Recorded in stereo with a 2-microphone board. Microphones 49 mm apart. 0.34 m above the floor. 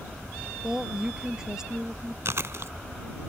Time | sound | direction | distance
0.6 | a woman speaking | 15° right (ahead or behind) | ?
2.2 | chewing | 65° right (ahead or behind) | ?